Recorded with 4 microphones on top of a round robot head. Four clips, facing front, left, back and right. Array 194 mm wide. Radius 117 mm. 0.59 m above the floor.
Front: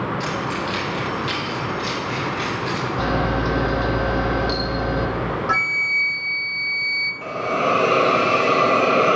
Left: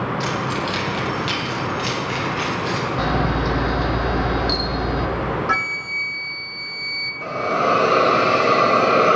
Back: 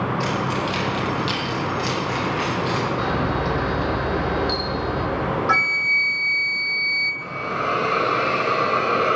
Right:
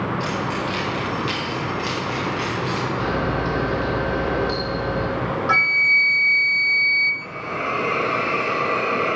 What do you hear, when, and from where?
0.2 s keys jangling: 125° left, 2.5 m; by 2.9 s 175° left, 3.5 m
3.0 s a camera shutter: 50° left, 1.8 m
5.5 s a flute: 145° right, 0.8 m
7.2 s a hiss: 50° left, 0.6 m